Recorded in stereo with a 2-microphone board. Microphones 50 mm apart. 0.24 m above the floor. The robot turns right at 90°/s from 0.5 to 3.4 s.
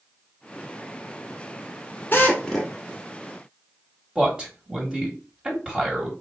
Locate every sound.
2.1 s a drill: 130° left, 1.1 m; by 2.7 s 175° right, 1.1 m
4.2 s a man speaking: 20° right (ahead or behind), 1.4 m